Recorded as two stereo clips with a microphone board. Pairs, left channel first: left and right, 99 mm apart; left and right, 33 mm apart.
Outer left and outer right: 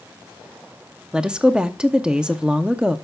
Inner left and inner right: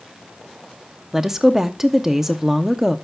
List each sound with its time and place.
1.1 s a woman speaking: 10° right (ahead or behind), 0.6 m